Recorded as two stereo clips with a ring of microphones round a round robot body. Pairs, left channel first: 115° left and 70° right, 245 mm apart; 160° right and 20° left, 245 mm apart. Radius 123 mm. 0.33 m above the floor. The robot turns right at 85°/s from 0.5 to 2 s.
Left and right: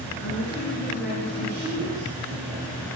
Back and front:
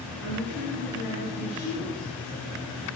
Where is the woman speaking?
160° left, 5 m; by 2.9 s 75° right, 5 m.